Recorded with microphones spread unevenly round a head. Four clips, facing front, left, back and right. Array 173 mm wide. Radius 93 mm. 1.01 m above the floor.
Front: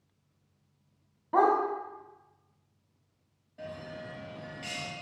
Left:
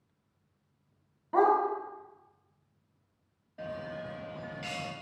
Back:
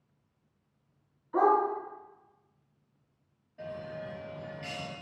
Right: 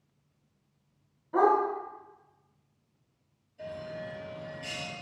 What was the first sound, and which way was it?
A dog barking, 25° left.